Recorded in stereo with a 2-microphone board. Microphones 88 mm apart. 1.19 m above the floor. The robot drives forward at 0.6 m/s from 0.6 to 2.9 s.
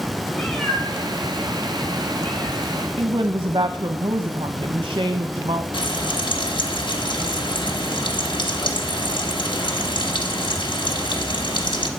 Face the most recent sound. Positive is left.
turn(degrees=60)  # may be behind; listen again after turning